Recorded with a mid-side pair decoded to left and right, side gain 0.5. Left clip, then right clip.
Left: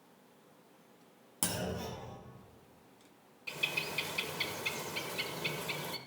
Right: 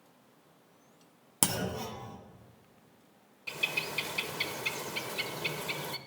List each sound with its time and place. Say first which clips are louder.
1.4 s a clunk: right 4 dB; 55° right, 1.1 m
3.5 s a bird: right 3 dB; 20° right, 0.5 m